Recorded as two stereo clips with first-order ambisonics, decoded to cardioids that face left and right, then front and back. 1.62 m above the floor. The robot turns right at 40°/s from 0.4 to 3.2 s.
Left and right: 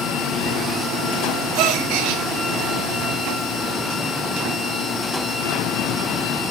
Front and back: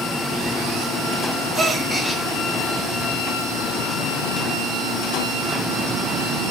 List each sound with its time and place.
1.6 s a gasp: 115° right, 3.5 m; by 2.2 s 90° right, 3.5 m